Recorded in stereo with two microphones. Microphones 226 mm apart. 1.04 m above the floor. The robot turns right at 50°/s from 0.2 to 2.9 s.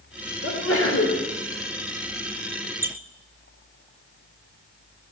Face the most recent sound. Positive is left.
turn(degrees=-10)  # may be behind; listen again after turning